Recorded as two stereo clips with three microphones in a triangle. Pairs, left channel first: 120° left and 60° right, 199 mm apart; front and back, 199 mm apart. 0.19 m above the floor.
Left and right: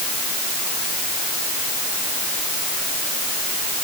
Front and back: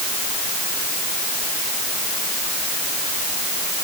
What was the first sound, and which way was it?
Only background noise.